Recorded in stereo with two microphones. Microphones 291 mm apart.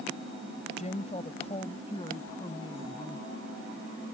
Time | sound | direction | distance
0.8 | a woman speaking | 25° left (ahead or behind) | ?